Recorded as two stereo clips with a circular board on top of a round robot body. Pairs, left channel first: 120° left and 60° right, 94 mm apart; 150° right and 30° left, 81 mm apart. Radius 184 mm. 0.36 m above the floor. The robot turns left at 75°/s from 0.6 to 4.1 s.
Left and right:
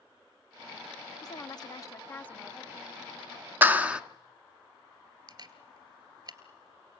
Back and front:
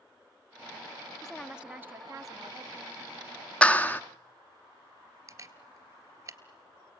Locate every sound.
1.2 s a woman speaking: 130° left, 1.1 m; by 2.8 s 15° left, 1.1 m
3.6 s a clap: 95° right, 1.1 m; by 4.0 s 125° right, 1.1 m
5.3 s a camera shutter: 25° right, 3 m